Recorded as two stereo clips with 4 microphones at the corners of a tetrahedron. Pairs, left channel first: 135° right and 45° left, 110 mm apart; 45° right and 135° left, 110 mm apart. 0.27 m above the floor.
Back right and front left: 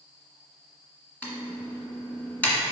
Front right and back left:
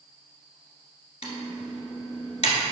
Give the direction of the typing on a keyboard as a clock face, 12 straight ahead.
2 o'clock.